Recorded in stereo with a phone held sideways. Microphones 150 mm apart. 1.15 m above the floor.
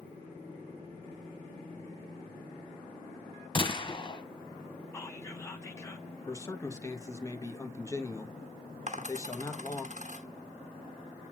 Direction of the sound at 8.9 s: 55° right (ahead or behind).